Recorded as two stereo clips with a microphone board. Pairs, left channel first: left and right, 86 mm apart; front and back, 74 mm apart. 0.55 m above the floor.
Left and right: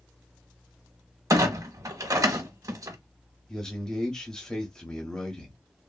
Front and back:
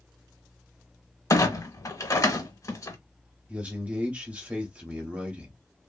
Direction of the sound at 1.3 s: 45° right.